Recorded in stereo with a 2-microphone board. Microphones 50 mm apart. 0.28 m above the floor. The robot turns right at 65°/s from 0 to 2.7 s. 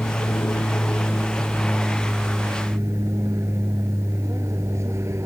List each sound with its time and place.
0.0 s an aircraft: 65° left (ahead or behind); by 5.3 s 70° right (ahead or behind)